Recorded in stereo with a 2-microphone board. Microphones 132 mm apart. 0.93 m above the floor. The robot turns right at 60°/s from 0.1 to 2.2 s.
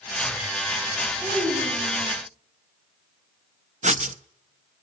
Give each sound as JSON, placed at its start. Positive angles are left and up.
{"t": 1.2, "sound": "a child speaking", "azimuth_deg": 155, "distance_m": 6.0}
{"t": 3.8, "sound": "writing", "side_deg": -65, "distance_m": 0.6}